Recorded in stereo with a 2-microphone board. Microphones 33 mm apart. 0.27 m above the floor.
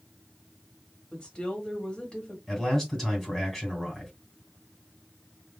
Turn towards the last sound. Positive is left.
turn(degrees=5)  # may be behind; listen again after turning